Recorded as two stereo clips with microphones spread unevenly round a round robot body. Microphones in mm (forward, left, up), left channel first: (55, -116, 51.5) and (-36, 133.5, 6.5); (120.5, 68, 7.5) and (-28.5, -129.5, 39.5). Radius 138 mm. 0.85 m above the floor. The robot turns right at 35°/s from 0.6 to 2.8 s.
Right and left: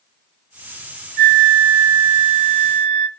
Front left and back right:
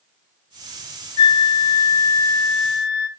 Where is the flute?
55° left, 0.5 m; by 3.1 s 110° left, 0.5 m.